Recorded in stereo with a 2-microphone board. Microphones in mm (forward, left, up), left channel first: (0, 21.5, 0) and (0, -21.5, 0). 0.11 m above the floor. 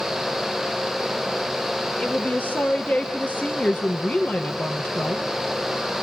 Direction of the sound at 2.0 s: 30° left (ahead or behind).